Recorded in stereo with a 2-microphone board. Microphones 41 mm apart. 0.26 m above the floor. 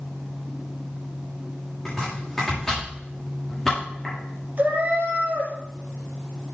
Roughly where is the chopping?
Centre.